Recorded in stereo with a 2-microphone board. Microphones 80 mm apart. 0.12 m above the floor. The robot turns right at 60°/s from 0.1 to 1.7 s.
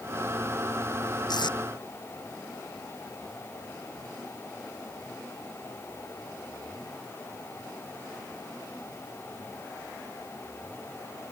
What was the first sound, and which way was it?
Tape being pulled, 60° left (ahead or behind).